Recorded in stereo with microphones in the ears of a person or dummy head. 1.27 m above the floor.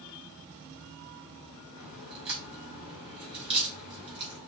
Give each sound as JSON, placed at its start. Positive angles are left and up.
{"t": 1.8, "sound": "a crack", "side_deg": -30, "distance_m": 3.5}